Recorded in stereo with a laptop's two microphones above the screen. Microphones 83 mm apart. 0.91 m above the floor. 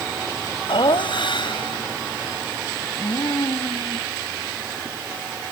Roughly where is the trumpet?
I don't hear a trumpet.